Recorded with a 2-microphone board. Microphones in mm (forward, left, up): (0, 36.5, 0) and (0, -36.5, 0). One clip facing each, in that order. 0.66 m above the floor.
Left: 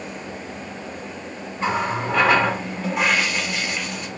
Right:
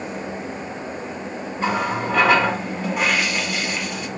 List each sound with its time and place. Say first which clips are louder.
1.6 s a running tap: even; centre (ahead or behind), 2.5 m